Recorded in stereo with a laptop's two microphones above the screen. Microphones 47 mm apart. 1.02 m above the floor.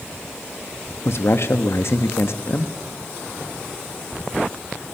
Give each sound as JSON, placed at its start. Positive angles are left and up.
{"t": 1.1, "sound": "a man speaking", "side_deg": 60, "distance_m": 1.2}